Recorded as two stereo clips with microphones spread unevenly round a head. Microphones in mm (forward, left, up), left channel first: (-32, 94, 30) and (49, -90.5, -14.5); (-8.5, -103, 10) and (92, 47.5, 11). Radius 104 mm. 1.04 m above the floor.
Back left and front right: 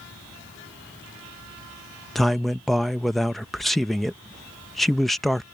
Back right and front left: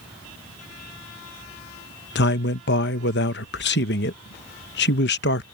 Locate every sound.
2.1 s a man speaking: 150° right